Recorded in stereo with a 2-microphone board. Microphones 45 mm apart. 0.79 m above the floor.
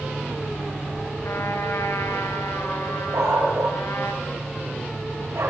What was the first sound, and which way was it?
A trumpet, 80° left.